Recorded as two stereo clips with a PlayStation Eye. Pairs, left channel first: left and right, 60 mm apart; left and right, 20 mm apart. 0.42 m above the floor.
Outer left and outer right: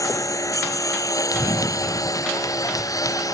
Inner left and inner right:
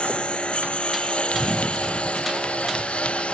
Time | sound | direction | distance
0.0 | a lawn mower | 65° left (ahead or behind) | ?
1.3 | running footsteps | 85° left | ?